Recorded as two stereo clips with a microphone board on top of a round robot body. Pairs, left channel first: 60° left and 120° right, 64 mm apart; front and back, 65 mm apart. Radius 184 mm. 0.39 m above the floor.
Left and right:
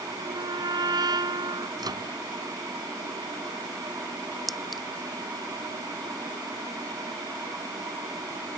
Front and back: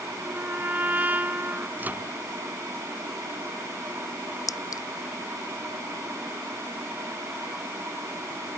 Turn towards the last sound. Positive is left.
turn(degrees=-30)